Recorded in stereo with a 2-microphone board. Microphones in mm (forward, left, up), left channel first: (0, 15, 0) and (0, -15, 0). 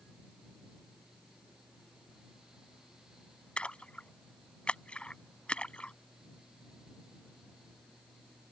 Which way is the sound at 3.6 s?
35° left (ahead or behind).